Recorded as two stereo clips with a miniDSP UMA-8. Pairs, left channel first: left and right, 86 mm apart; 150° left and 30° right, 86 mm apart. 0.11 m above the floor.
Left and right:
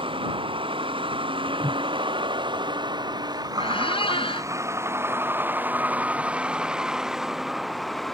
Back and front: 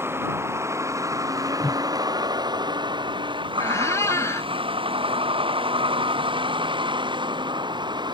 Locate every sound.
0.0 s a vehicle: 90° right; by 8.1 s 5° left
1.6 s a whoosh: 130° right
3.6 s a squeak: 95° left